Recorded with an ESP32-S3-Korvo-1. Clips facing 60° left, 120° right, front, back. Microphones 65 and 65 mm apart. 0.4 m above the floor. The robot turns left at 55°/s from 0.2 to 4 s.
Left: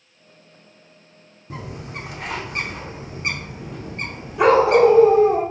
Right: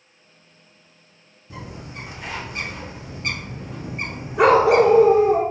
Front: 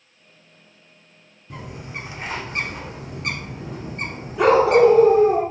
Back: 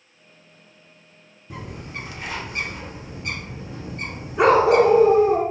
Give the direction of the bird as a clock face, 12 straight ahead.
9 o'clock.